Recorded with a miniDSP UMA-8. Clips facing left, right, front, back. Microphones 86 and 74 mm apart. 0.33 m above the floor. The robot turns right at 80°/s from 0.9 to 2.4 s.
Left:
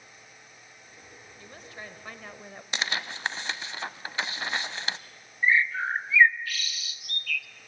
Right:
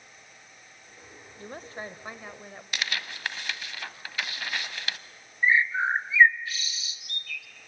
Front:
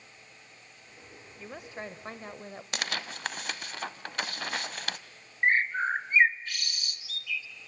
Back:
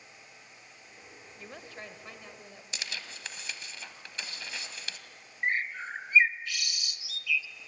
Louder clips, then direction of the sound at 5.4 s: Right 1 dB, front 6 dB; 30° right.